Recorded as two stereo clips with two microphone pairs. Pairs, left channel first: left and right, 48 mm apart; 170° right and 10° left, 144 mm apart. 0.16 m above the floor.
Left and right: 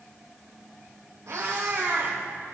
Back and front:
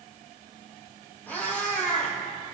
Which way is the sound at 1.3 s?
95° right.